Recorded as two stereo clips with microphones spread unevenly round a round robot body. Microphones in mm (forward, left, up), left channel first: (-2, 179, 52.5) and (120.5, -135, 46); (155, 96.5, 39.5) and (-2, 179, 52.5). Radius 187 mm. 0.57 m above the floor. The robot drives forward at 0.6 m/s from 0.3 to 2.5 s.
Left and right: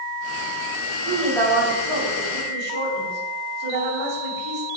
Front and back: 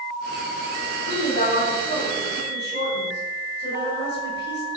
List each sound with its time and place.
1.1 s a woman speaking: 90° right, 3 m; by 4.7 s 105° right, 3.5 m